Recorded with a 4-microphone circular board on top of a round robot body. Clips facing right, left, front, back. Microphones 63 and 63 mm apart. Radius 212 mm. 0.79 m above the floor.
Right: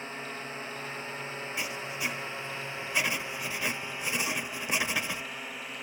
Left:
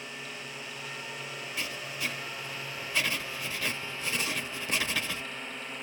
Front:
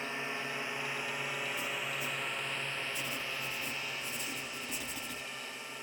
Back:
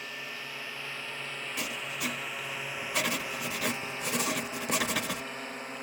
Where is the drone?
55° right; by 5.8 s 175° right.